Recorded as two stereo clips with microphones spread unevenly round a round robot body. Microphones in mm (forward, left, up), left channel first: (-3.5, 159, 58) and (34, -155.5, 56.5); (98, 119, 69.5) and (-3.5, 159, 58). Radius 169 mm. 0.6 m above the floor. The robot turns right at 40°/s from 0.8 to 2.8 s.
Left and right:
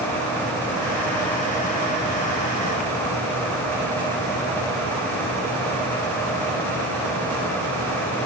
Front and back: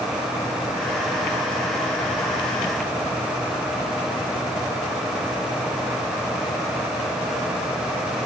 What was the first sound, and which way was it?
Only background noise.